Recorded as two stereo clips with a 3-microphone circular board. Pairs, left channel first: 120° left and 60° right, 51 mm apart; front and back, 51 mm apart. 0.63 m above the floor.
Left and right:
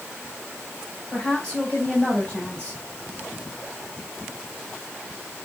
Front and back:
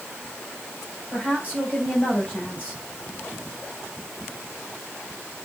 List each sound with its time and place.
1.1 s a woman speaking: 55° left, 3.5 m